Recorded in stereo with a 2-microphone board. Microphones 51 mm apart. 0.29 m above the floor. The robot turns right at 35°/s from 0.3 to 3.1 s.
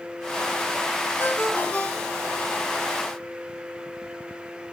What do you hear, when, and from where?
1.2 s a ringtone: 130° left, 2 m; by 2.4 s 175° left, 2 m